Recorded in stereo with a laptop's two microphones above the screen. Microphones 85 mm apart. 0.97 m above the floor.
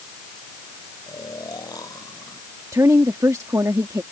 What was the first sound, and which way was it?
Snoring, 50° left (ahead or behind).